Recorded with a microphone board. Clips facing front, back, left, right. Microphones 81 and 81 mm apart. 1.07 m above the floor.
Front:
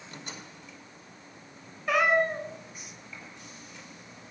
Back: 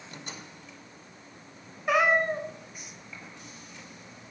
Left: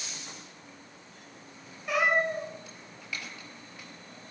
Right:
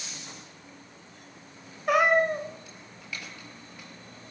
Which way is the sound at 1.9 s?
110° right.